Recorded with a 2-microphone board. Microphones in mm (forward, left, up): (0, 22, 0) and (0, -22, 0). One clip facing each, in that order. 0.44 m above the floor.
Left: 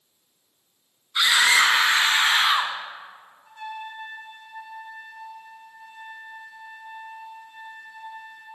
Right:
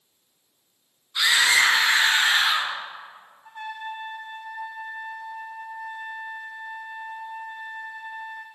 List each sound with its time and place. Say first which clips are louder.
1.1 s a scream: left 1 dB; 45° left (ahead or behind), 4.5 m; by 2.7 s 40° left (ahead or behind), 3.5 m
3.5 s a trumpet: right 2 dB; 55° right (ahead or behind), 2 m